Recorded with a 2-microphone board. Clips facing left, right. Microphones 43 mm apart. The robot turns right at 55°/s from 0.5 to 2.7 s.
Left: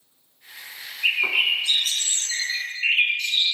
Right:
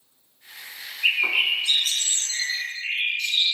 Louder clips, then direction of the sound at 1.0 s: Even; 10° right.